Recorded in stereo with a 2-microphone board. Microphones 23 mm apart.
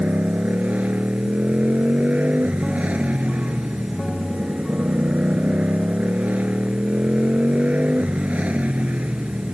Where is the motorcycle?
75° right (ahead or behind).